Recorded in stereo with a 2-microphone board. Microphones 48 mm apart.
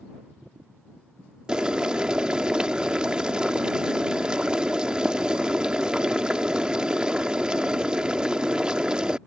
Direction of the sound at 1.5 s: 20° right (ahead or behind).